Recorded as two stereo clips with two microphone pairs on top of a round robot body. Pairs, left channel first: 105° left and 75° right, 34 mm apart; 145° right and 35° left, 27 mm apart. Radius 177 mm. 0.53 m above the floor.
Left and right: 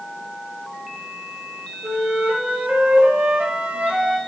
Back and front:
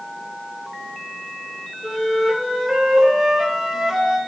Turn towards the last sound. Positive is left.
turn(degrees=-40)